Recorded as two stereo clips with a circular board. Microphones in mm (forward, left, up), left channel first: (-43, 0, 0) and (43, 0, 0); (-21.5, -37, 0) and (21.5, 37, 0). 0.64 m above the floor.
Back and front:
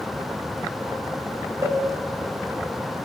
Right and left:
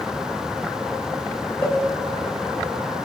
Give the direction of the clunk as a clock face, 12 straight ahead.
I don't hear a clunk.